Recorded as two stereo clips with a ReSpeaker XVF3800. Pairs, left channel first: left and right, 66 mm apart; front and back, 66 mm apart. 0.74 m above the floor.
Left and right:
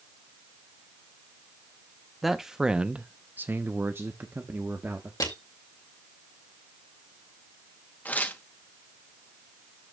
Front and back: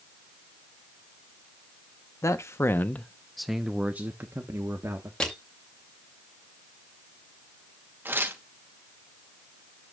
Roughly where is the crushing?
Left.